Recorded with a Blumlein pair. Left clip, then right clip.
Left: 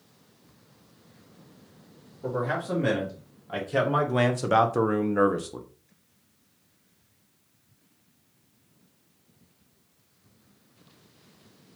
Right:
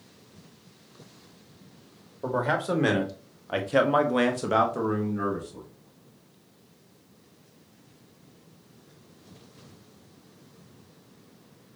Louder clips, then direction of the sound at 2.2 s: Right 3 dB; 35° right.